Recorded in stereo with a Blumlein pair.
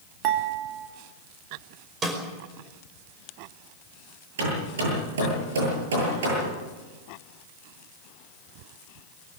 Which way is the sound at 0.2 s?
40° right.